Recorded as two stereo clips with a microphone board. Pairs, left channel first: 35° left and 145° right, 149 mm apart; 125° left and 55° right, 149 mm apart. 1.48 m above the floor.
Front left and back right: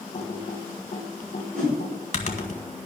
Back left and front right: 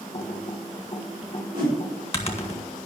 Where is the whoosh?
115° right, 5.5 m.